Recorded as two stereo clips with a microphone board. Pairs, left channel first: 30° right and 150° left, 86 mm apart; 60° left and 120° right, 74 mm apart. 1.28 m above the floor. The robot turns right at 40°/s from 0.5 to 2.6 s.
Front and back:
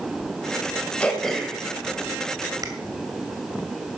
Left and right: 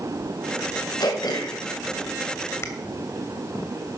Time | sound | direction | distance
1.0 | throat clearing | 45° left | 2.5 m